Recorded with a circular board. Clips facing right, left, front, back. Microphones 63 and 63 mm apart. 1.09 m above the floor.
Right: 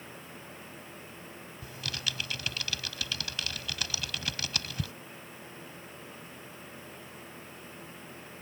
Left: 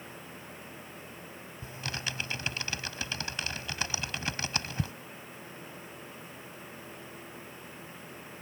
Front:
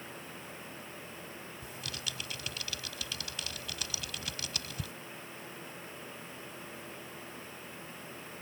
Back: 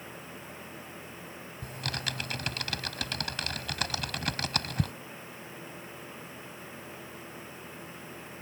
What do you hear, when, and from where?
1.6 s typing on a keyboard: 150° left